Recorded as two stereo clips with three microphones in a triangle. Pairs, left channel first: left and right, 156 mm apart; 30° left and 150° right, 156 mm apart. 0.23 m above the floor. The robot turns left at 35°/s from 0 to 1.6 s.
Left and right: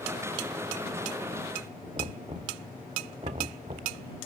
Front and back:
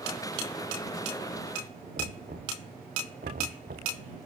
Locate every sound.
2.0 s knocking: 140° right